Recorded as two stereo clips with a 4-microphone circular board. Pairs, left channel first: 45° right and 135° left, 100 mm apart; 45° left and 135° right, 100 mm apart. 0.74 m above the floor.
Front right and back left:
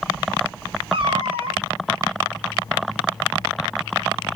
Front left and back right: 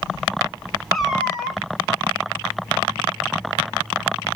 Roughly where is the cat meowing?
Behind left.